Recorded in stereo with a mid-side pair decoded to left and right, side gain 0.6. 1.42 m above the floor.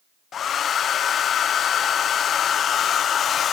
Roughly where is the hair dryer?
Ahead left.